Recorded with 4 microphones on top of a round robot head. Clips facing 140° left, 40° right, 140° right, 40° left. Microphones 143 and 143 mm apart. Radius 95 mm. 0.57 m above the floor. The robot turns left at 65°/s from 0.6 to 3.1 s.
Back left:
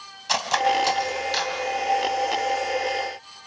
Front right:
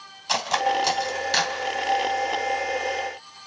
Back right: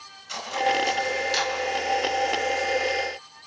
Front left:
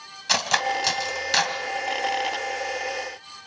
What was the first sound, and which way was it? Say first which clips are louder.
Cutlery clinking: back left 1 dB, back right 1 dB; 50° left.